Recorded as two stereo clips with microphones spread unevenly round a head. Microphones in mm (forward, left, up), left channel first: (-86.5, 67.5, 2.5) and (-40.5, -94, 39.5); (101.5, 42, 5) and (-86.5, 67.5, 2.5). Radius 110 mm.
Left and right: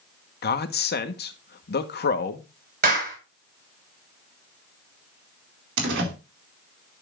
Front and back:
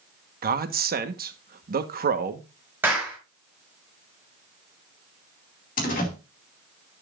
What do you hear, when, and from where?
0.4 s a man speaking: 135° left, 1.2 m
2.8 s a clap: 105° right, 5 m
5.8 s a door slam: 65° right, 2 m